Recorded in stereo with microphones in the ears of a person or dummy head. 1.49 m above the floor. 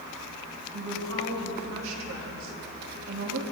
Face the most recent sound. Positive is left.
turn(degrees=-75)  # may be behind; listen again after turning